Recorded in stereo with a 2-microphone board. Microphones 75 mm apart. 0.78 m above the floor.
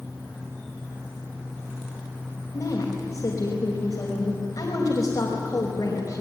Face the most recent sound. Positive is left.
turn(degrees=45)  # may be behind; listen again after turning